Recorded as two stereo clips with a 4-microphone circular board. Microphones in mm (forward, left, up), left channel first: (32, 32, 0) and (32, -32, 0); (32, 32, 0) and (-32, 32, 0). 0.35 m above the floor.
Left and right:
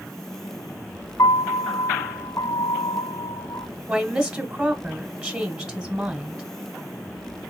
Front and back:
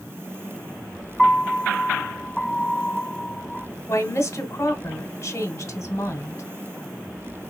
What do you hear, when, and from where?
1.2 s a piano: 90° left, 1.3 m
3.9 s a woman speaking: 30° right, 1.3 m